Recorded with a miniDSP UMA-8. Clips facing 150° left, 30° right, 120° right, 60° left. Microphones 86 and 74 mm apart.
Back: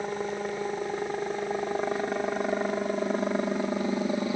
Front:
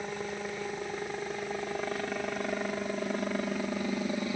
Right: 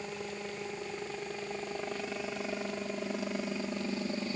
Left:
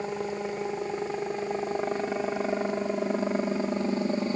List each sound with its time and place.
0.0 s a helicopter: 95° left